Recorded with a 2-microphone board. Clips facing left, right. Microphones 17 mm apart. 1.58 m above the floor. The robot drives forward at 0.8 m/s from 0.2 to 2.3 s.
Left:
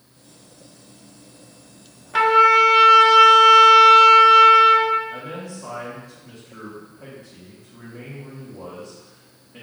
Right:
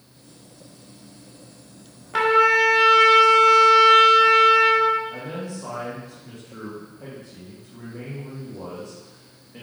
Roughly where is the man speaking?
Centre.